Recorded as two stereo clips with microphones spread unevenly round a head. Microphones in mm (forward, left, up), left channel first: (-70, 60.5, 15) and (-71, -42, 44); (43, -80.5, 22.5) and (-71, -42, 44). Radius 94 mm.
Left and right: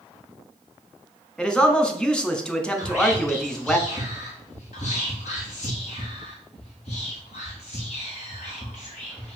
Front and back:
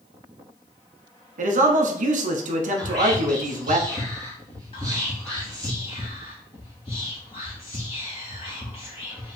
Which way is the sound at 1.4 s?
170° left.